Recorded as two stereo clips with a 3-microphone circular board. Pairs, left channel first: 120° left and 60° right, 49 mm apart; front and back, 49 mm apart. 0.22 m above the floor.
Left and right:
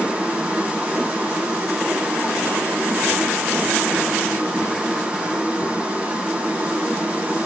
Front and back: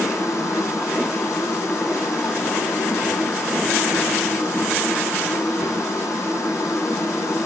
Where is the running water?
10° left, 5.5 m.